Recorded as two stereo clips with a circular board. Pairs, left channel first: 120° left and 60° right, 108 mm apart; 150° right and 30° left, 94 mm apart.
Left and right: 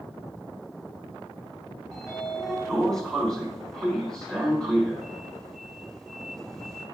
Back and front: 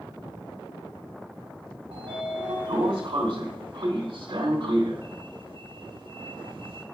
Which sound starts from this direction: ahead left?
A sliding door, at 1.9 s.